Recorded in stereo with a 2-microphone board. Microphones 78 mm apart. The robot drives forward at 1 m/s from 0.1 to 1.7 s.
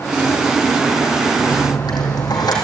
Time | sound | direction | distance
1.4 | a dropped coin | 60° left (ahead or behind) | 4 m